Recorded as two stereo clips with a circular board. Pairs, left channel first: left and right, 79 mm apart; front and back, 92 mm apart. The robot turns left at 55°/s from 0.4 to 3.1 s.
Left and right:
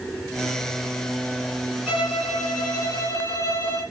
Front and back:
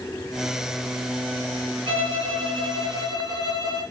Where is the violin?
155° right, 7 m; by 3.8 s 140° left, 7 m.